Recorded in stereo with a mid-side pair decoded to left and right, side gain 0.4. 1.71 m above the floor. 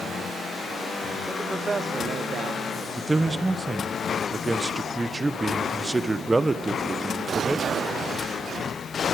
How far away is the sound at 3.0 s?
About 1.2 m.